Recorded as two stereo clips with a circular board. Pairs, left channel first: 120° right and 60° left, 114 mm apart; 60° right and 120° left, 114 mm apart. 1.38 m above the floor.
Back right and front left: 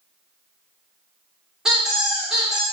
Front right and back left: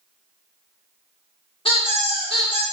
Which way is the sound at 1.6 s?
25° right.